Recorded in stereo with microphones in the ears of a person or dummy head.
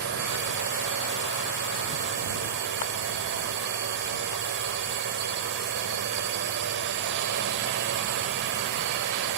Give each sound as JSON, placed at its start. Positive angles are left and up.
{"t": 0.0, "sound": "a drone", "side_deg": -60}